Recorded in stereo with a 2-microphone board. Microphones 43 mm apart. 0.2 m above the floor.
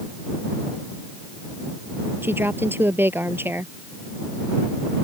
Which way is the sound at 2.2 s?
55° right (ahead or behind).